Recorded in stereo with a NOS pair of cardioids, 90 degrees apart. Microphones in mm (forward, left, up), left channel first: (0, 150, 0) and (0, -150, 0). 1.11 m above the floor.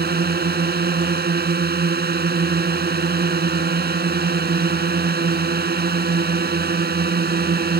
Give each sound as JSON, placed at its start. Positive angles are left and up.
{"t": 0.0, "sound": "a drone", "azimuth_deg": -30}